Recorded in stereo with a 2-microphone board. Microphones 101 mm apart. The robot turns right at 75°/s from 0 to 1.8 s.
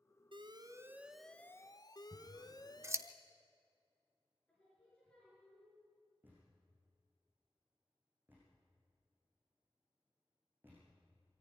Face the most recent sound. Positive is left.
turn(degrees=-20)  # may be behind; listen again after turning